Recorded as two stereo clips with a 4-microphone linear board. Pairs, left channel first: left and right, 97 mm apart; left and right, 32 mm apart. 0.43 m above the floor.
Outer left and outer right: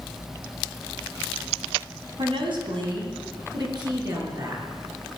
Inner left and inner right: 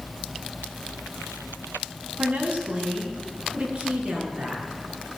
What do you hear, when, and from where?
2.2 s a woman speaking: 65° right (ahead or behind), 3 m; by 4.6 s 40° right (ahead or behind), 6 m